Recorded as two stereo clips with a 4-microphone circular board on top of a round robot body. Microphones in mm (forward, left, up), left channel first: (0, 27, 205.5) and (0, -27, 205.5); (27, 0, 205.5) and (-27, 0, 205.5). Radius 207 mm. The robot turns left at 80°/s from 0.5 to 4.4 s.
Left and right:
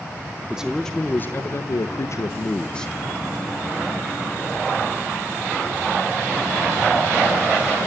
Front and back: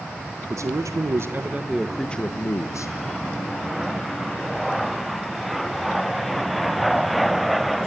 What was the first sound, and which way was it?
A man speaking, 160° right.